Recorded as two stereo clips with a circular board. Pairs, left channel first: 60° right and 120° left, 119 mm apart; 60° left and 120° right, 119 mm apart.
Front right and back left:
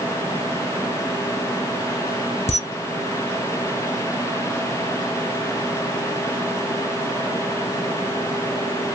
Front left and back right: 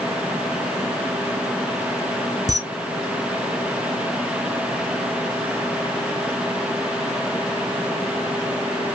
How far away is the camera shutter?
About 1.0 m.